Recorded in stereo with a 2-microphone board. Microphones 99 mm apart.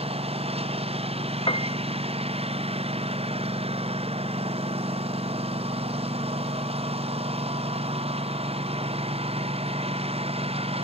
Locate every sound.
0.0 s a lawn mower: 85° right
1.5 s a piano: 60° left (ahead or behind)